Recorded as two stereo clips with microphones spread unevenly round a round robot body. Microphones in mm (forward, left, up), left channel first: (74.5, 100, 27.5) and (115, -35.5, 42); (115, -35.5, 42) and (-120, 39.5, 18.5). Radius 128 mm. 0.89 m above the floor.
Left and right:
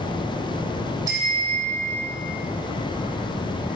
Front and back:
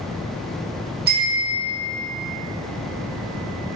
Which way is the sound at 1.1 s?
145° right.